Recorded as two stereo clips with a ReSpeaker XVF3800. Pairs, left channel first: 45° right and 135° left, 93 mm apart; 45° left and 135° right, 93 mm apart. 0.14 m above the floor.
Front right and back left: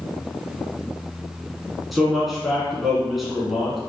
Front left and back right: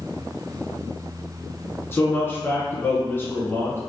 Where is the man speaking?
50° left, 1.3 m.